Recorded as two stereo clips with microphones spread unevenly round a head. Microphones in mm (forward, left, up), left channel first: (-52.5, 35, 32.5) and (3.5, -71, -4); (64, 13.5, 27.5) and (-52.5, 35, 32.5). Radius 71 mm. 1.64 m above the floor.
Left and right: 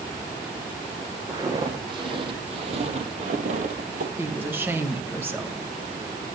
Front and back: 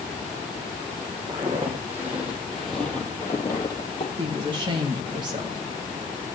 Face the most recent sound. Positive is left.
turn(degrees=-135)